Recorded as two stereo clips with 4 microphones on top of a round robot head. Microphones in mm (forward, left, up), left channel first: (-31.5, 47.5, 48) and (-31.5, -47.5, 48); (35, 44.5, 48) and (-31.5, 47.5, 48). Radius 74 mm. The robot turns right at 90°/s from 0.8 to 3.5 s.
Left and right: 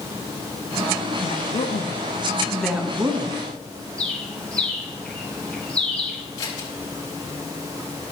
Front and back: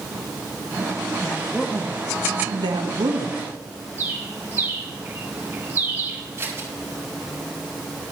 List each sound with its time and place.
1.2 s a woman speaking: 50° left, 1.4 m; by 3.4 s 115° right, 1.4 m
4.0 s a bird: 155° left, 1.1 m
6.4 s scissors: 125° left, 5 m